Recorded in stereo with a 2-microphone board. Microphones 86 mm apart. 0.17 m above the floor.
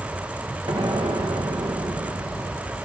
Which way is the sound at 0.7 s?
70° right (ahead or behind).